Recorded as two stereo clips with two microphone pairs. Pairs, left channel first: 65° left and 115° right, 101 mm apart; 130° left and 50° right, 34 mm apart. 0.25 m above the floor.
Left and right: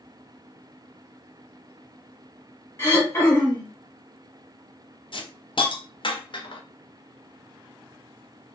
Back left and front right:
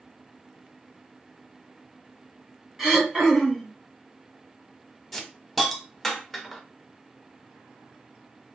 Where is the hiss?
45° left, 0.6 m.